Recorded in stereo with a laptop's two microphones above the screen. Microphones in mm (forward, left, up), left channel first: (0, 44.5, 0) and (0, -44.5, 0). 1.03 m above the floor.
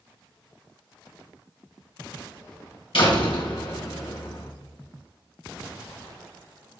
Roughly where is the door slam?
Left.